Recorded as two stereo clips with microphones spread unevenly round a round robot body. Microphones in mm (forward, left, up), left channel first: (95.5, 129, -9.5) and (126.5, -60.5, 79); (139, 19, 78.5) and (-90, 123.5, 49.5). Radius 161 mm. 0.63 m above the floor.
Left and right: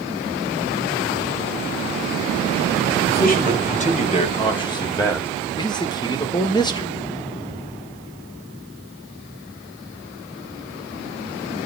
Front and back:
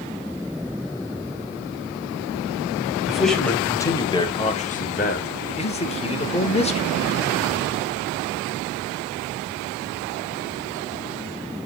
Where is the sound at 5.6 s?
40° left, 2.5 m.